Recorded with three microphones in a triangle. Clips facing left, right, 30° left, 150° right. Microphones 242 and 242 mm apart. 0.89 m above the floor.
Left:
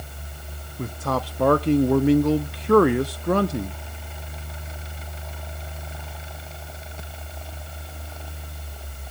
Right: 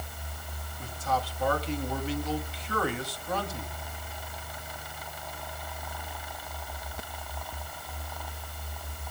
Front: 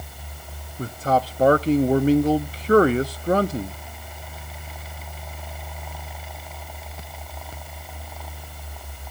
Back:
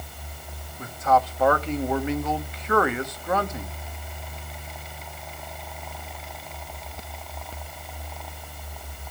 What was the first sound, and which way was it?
A man speaking, 80° left.